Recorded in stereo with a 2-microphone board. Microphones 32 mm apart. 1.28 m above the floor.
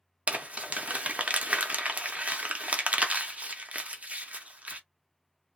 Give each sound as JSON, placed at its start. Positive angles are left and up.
{"t": 0.3, "sound": "crumpling", "side_deg": -45, "distance_m": 0.6}